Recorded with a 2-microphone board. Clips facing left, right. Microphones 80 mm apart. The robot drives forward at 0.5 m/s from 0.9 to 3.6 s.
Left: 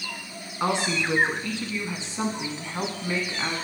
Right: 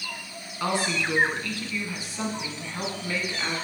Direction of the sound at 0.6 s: 20° left (ahead or behind).